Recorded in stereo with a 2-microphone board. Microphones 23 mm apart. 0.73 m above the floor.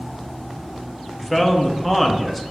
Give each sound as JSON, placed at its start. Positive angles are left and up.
{"t": 1.2, "sound": "a man speaking", "side_deg": 5, "distance_m": 0.7}